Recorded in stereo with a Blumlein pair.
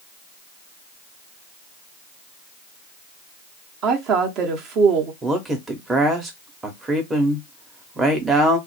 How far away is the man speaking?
About 1.0 m.